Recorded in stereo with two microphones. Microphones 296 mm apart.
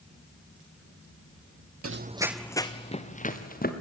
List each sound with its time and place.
1.8 s running footsteps: 55° right (ahead or behind), 0.6 m; by 3.7 s 30° left (ahead or behind), 2.5 m